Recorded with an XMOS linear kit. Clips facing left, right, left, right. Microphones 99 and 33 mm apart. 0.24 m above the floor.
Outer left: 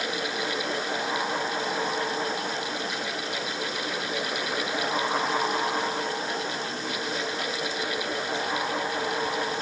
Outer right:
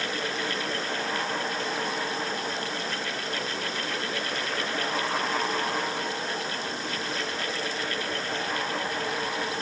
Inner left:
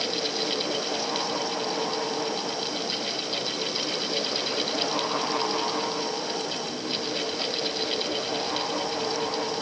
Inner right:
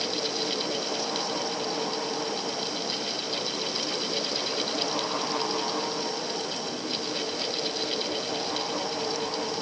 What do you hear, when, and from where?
Only background noise.